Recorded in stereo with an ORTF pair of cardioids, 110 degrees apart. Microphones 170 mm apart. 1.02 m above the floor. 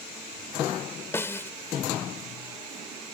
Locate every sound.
1.1 s a snare drum: 15° left